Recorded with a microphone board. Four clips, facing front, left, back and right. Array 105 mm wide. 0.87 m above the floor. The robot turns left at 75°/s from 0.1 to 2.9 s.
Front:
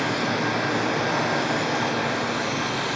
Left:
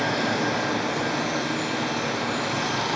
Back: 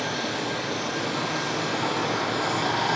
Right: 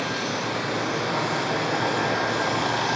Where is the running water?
80° left, 5 m; by 3.0 s 130° right, 5 m.